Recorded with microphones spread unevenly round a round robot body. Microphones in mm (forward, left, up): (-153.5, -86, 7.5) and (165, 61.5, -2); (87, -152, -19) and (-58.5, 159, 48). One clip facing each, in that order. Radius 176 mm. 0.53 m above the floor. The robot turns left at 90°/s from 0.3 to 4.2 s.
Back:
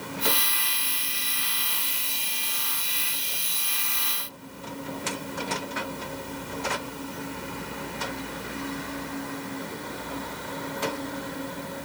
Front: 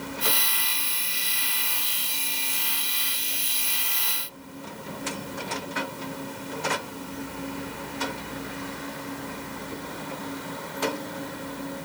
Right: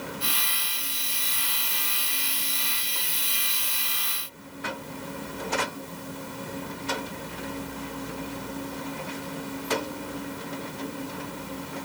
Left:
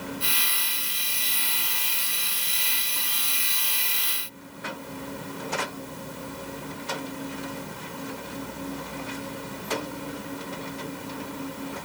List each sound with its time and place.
Only background noise.